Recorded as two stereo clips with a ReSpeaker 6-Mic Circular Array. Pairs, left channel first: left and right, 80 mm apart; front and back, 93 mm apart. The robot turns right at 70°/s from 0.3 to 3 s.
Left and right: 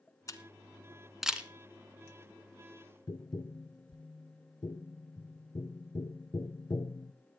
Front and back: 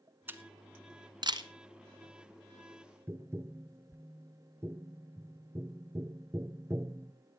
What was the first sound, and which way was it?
A camera shutter, 120° left.